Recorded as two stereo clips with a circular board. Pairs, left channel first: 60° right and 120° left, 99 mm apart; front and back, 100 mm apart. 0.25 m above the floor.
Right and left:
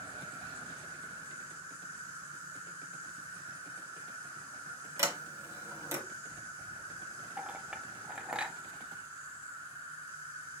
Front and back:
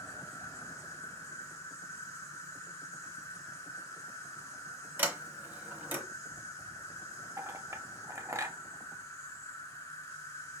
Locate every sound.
0.0 s an insect: 55° left, 1.9 m
5.0 s a sliding door: 135° left, 0.9 m
7.4 s a clink: 170° right, 0.5 m